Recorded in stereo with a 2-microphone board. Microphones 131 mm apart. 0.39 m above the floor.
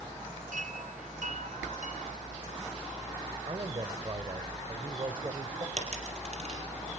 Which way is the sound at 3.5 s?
40° right (ahead or behind).